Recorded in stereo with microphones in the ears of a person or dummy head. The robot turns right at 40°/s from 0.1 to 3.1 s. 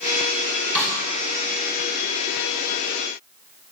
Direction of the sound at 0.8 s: 10° left (ahead or behind).